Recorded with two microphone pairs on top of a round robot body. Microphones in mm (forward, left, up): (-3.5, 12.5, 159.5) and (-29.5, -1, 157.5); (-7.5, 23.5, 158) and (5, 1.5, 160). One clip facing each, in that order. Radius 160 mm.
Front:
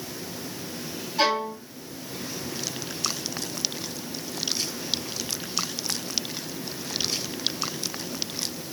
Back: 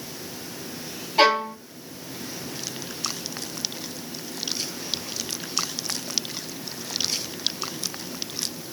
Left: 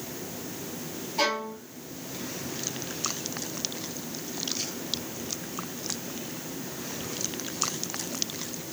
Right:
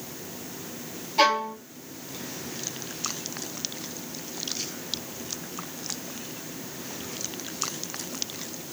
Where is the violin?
125° right, 1.5 m.